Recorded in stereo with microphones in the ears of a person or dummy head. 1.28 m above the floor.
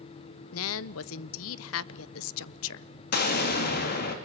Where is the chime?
I don't hear a chime.